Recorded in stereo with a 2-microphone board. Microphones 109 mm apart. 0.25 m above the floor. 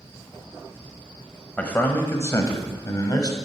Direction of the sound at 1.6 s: 10° left (ahead or behind).